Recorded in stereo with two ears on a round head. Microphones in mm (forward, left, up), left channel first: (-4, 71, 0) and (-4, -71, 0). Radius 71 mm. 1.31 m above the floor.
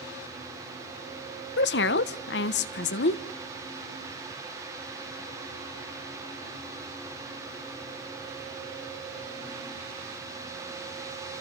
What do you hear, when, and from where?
1.6 s a woman speaking: 80° left, 1.0 m